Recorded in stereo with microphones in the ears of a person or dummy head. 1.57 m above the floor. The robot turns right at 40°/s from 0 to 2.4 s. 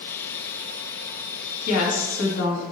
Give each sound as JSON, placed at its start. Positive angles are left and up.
{"t": 1.7, "sound": "a woman speaking", "side_deg": 70, "distance_m": 2.5}